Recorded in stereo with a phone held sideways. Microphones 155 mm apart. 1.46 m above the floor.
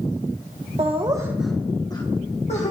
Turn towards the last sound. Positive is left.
turn(degrees=45)  # may be behind; listen again after turning